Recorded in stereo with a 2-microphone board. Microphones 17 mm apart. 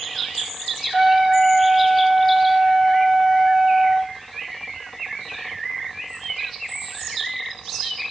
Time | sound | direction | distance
0.9 | a trumpet | 10° right (ahead or behind) | 2.5 m